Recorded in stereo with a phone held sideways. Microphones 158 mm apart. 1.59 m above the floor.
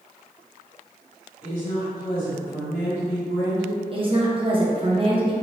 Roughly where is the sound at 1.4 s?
Left.